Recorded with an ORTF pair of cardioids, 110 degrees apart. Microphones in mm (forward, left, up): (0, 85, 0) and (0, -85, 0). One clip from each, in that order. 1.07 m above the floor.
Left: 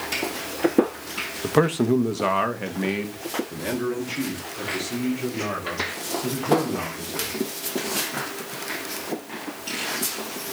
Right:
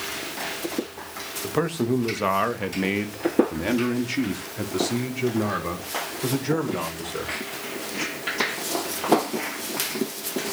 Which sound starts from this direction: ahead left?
A man speaking, at 1.4 s.